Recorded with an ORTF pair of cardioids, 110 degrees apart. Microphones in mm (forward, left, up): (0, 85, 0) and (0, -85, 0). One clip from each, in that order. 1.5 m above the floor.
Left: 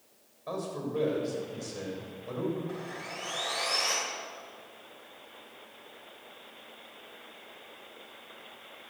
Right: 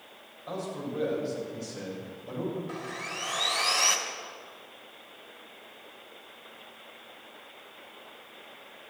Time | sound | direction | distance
0.5 | a man speaking | 25° left | 6.5 m
2.7 | sawing | 35° right | 3 m